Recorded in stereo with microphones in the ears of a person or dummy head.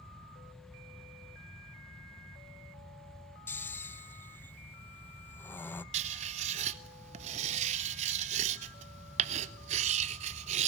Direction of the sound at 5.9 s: 40° right (ahead or behind).